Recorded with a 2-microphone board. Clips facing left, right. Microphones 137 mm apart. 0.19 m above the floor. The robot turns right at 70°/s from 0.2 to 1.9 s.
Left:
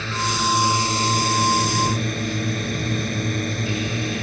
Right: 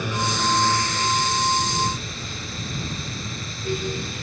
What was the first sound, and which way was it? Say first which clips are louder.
A drone: even; 15° right.